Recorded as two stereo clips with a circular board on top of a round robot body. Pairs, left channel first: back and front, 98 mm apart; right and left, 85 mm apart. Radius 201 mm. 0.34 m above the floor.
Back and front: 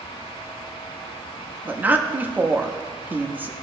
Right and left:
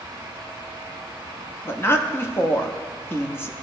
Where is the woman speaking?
55° right, 1.2 m.